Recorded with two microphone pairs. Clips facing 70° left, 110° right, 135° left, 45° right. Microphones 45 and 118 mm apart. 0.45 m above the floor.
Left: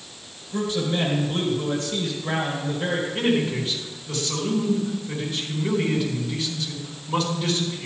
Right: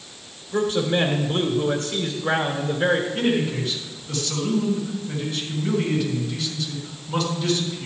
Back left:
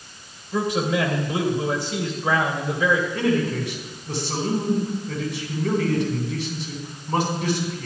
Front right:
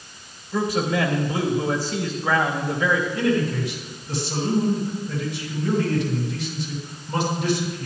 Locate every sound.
0.5 s a man speaking: 160° right, 1.9 m
3.1 s a man speaking: 140° left, 4.5 m